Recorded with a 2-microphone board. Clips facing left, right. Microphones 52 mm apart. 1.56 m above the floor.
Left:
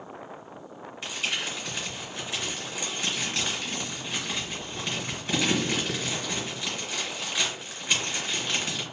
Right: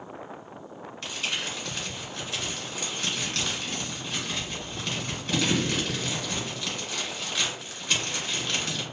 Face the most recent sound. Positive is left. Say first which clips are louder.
# left 1 dB
turn(degrees=15)  # may be behind; listen again after turning